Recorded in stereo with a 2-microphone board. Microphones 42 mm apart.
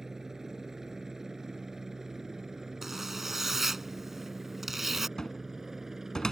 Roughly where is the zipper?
Centre.